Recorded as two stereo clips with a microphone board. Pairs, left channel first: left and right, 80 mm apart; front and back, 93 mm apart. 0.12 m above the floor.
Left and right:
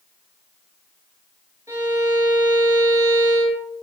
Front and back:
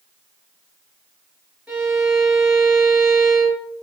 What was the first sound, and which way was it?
A violin, 105° right.